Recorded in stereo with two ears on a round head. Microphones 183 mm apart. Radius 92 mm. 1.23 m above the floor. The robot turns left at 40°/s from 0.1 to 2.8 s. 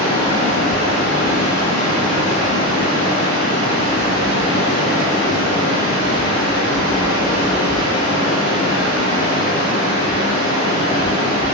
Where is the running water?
160° left, 1.5 m; by 11.5 s 50° left, 1.5 m.